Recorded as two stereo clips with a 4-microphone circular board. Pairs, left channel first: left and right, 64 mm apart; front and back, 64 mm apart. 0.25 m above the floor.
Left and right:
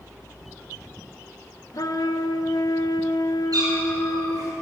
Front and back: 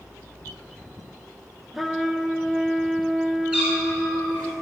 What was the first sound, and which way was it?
A trumpet, 90° left.